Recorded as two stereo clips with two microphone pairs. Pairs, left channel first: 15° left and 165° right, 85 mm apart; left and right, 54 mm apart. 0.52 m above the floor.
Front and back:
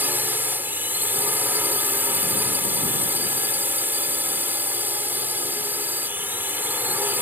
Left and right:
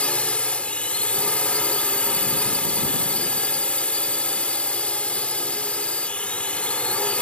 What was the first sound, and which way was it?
A drone, 140° left.